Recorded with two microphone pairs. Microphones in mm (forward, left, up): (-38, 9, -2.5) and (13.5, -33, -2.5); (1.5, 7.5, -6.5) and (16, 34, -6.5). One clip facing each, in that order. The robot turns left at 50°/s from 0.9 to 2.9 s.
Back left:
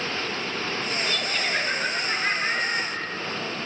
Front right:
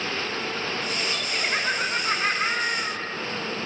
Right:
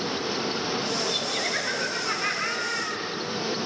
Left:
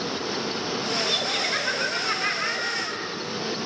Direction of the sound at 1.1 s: 35° left.